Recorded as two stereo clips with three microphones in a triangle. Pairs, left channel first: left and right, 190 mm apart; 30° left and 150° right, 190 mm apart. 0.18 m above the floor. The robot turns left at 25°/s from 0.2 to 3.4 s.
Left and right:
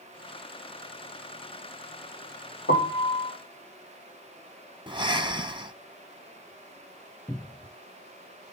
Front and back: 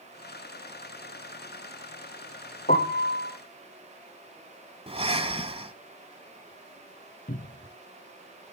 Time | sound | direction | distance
2.7 | a piano | 70° left | 3 m
4.9 | breathing | 130° right | 1.7 m
7.3 | a cupboard door | 15° left | 0.9 m